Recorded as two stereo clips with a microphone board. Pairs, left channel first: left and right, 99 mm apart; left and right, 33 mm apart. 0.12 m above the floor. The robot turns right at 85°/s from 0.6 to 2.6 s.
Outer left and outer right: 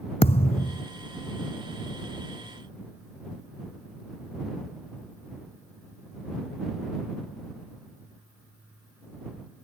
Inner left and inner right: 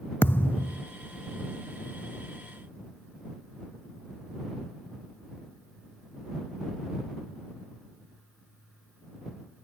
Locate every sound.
0.2 s a thud: 80° left; by 0.8 s 65° left (ahead or behind)